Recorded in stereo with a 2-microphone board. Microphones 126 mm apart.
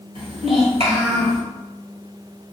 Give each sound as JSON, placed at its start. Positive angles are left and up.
{"t": 0.1, "sound": "a child speaking", "side_deg": -50, "distance_m": 1.9}